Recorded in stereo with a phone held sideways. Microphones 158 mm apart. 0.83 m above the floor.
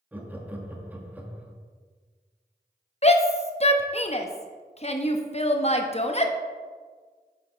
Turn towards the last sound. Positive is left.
turn(degrees=40)  # may be behind; listen again after turning